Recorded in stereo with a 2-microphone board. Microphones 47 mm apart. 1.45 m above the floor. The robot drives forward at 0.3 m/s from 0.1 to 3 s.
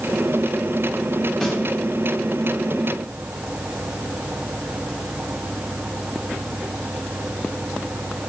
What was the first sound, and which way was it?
A snare drum, 15° left (ahead or behind).